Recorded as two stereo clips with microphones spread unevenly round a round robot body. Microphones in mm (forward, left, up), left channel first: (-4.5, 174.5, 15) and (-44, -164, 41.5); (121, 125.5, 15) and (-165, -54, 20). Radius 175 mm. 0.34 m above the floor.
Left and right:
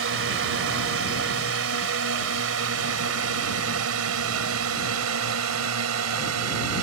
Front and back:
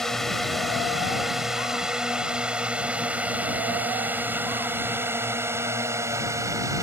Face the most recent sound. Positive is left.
turn(degrees=-70)